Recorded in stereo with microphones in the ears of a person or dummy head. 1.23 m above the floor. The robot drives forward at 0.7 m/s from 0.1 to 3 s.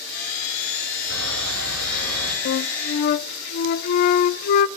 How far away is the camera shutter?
About 5 m.